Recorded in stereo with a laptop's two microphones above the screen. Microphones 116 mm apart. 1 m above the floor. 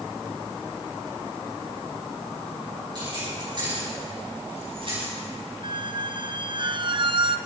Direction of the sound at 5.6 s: 45° right (ahead or behind).